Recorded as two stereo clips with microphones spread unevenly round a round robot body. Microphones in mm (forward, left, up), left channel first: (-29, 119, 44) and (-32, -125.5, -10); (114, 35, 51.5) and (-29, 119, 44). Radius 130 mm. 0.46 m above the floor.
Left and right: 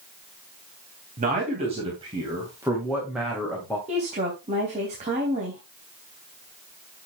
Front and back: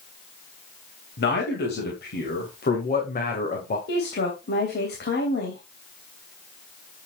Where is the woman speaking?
35° right, 3 m.